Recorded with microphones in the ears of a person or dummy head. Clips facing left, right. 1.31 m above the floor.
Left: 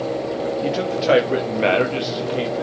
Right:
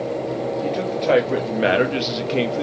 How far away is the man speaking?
About 1.9 m.